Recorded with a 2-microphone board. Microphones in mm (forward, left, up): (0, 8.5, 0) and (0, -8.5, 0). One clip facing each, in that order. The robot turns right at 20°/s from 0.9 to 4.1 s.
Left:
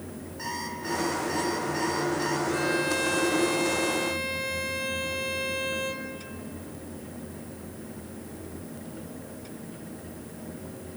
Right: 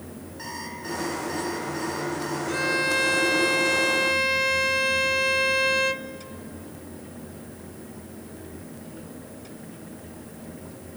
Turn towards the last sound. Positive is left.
turn(degrees=-120)